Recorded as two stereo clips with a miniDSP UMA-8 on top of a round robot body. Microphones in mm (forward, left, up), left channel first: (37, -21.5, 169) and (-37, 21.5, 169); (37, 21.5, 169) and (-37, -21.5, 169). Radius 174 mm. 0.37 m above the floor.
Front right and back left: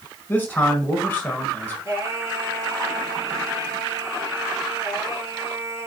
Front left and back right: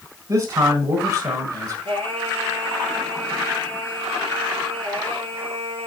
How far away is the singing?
About 3.5 m.